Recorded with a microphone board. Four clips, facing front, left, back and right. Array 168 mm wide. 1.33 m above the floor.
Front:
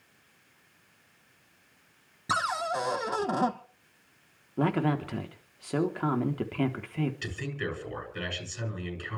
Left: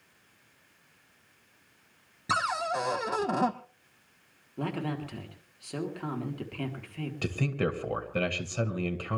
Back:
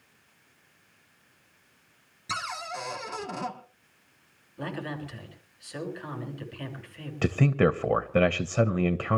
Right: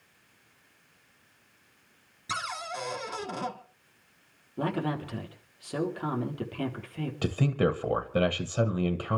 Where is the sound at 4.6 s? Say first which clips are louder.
Right 3 dB, front 8 dB; 10° right, 3.5 m.